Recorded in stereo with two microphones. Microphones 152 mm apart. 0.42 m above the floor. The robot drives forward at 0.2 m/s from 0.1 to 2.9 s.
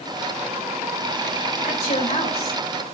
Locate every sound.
1.6 s a woman speaking: 50° left (ahead or behind), 1.7 m; by 2.6 s 45° left (ahead or behind), 1.8 m